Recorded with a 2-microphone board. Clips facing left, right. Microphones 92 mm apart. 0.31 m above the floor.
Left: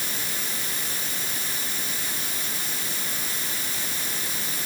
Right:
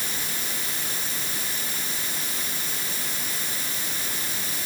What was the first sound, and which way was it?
Only background noise.